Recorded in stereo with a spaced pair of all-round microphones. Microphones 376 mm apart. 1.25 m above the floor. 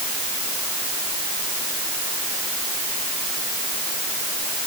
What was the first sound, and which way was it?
Only background noise.